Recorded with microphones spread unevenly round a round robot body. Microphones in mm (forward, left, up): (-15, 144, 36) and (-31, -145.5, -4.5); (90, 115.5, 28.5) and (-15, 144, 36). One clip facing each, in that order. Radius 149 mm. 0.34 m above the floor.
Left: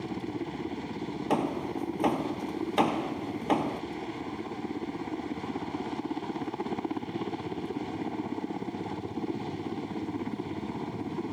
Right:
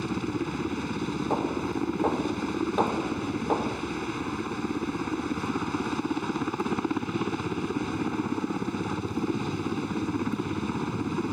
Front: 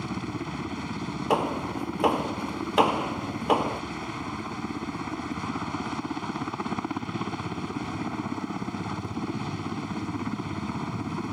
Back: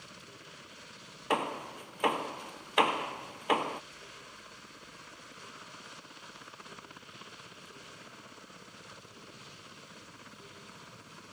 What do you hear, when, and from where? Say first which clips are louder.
0.0 s a helicopter: right 5 dB, front 20 dB; 30° right
1.3 s hammering: left 2 dB, front 6 dB; 45° left